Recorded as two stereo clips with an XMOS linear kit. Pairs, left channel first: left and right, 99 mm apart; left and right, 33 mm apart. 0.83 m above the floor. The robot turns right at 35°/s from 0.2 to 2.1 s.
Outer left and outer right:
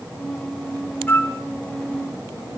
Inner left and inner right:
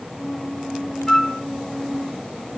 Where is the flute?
15° left (ahead or behind), 1.4 m; by 1.4 s 25° left (ahead or behind), 1.4 m.